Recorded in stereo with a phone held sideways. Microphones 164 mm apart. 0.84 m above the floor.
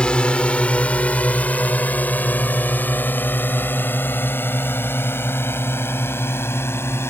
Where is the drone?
5° left (ahead or behind); by 7.1 s 15° left (ahead or behind).